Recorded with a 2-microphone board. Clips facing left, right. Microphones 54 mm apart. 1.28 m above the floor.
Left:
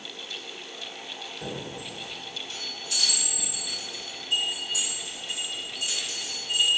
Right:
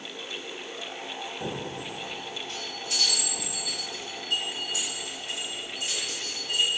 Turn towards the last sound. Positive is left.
turn(degrees=-75)  # may be behind; listen again after turning